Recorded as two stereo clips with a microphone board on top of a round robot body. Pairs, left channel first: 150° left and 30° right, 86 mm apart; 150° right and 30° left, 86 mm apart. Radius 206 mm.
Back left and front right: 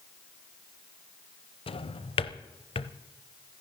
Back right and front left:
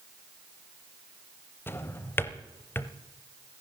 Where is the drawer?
145° left, 0.7 m.